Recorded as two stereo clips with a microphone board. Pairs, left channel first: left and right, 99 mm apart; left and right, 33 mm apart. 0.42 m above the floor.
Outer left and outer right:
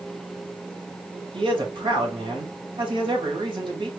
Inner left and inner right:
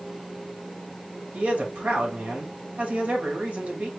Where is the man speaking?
55° right (ahead or behind), 2.5 m.